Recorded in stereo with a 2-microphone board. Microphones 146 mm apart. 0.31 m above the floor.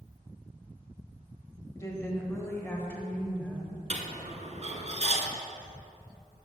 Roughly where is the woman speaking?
Left.